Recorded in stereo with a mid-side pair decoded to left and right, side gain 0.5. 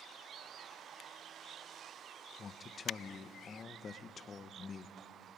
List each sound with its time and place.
2.4 s a man speaking: 40° left, 1.0 m